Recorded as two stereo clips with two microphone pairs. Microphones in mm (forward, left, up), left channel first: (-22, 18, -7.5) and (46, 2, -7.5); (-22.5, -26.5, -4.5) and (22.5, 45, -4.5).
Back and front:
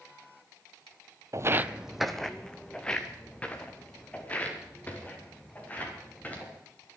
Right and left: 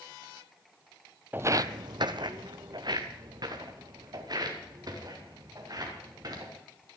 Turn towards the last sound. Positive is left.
turn(degrees=100)